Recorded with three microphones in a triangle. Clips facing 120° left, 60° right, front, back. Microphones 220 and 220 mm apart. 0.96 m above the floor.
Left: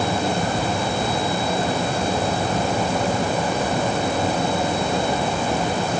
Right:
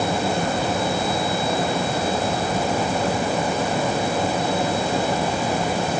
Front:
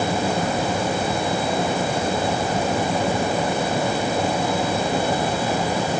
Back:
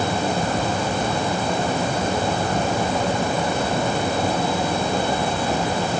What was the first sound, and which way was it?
Only background noise.